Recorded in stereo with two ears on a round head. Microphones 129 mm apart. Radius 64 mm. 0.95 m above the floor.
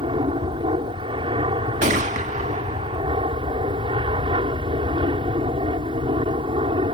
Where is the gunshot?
55° right (ahead or behind).